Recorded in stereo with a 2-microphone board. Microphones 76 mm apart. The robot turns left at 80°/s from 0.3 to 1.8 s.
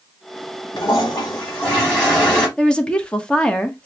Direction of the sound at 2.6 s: 15° left (ahead or behind).